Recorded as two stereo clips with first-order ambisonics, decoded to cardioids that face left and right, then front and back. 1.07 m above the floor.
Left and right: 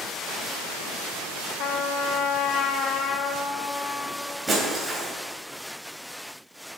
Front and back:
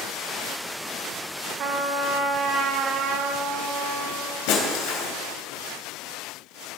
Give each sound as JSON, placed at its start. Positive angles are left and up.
{"t": 1.6, "sound": "a trumpet", "azimuth_deg": 130, "distance_m": 1.0}
{"t": 4.5, "sound": "breaking glass", "azimuth_deg": -10, "distance_m": 3.0}